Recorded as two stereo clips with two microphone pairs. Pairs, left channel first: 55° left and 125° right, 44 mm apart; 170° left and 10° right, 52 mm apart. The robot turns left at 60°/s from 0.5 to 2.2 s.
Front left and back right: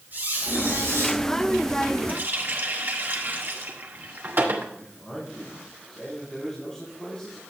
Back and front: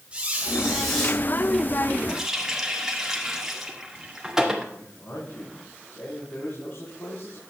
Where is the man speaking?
130° left, 4 m.